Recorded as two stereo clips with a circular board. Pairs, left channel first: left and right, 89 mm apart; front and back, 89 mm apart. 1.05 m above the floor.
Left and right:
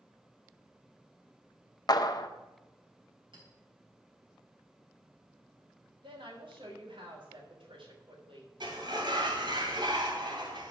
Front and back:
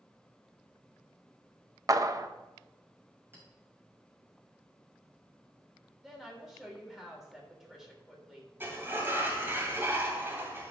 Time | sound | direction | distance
1.9 | a clap | 130° left | 0.6 m
3.3 | a clink | 115° right | 4 m
6.0 | a woman speaking | 95° right | 3 m
8.6 | a sliding door | 115° right | 2.5 m